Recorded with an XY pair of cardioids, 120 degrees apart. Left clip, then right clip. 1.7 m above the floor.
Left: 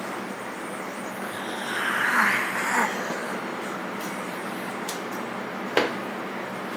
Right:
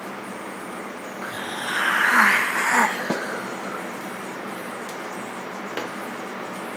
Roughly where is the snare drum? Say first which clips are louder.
Right 4 dB; ahead right.